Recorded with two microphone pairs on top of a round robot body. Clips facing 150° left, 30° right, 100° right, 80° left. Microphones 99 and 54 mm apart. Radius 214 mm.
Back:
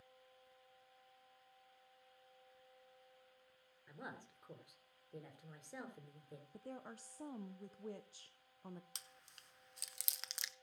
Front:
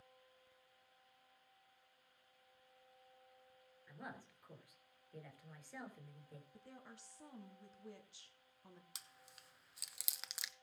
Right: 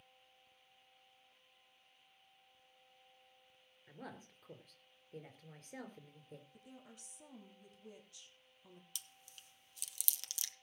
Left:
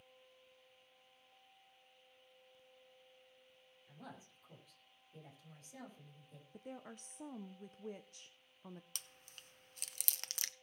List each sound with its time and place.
3.9 s a woman speaking: 145° right, 4 m
6.5 s a woman speaking: 115° left, 1.1 m
8.9 s chewing: 60° left, 1.1 m